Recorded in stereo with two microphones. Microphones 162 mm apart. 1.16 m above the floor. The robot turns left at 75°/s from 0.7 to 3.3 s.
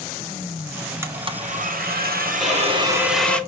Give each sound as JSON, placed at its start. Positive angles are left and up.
{"t": 1.0, "sound": "a blender", "azimuth_deg": -15, "distance_m": 0.8}
{"t": 2.4, "sound": "a violin", "azimuth_deg": 0, "distance_m": 3.0}